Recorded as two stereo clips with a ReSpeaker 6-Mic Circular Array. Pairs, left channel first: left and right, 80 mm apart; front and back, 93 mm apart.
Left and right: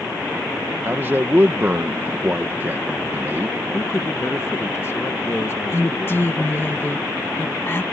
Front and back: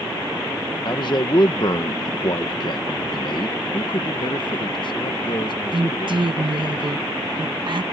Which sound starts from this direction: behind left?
A woman speaking, at 5.7 s.